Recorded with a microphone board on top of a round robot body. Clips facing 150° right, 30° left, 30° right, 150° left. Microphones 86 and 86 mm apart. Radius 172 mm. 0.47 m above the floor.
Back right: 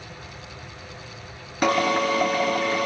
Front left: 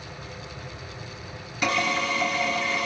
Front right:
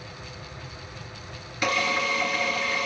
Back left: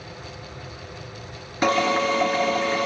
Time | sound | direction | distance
1.6 | a drill | 165° right | 1.3 m